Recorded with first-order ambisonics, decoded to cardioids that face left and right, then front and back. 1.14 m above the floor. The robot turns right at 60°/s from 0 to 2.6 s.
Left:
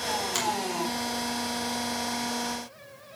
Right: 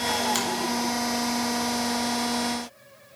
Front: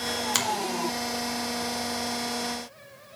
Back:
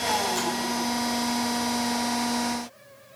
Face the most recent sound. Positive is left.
turn(degrees=130)